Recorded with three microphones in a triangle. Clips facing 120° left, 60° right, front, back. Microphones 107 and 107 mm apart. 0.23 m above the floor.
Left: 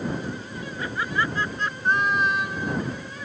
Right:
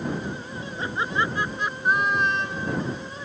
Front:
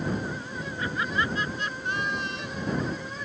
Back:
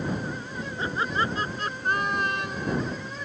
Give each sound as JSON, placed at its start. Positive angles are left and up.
{"t": 0.8, "sound": "laughter", "azimuth_deg": -120}